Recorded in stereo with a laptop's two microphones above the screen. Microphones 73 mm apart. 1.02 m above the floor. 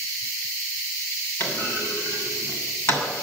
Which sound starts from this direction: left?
A clunk, at 1.4 s.